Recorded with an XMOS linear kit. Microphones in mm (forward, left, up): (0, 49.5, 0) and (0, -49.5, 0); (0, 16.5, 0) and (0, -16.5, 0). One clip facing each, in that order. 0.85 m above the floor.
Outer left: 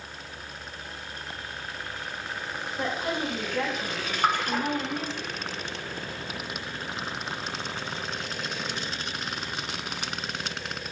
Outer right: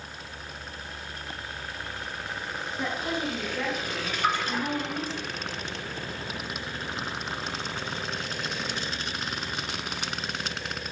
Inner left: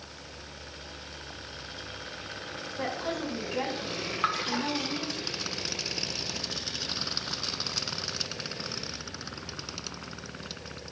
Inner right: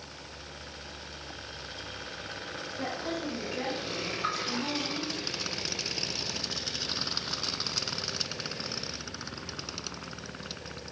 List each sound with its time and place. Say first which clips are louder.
2.8 s a woman speaking: outer left 1 dB, inner left 2 dB; 70° left (ahead or behind), 4.5 m; by 5.2 s 50° left (ahead or behind), 3.5 m
4.2 s a splash: outer left 2 dB, inner left 5 dB; 50° left (ahead or behind), 1.1 m